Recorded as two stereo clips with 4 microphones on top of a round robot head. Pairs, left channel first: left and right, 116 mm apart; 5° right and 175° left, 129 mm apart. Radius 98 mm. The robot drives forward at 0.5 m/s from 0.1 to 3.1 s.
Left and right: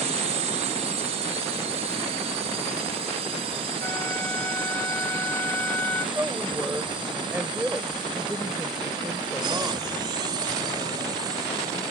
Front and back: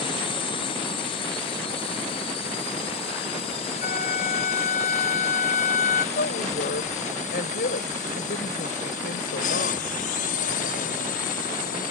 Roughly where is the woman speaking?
Ahead.